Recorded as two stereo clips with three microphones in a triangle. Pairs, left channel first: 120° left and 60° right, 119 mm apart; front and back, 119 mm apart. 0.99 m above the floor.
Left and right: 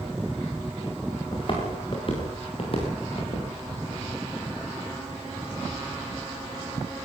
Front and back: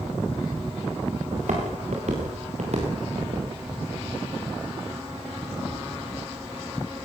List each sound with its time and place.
1.3 s footsteps: 165° left, 7 m; by 3.5 s 155° left, 7 m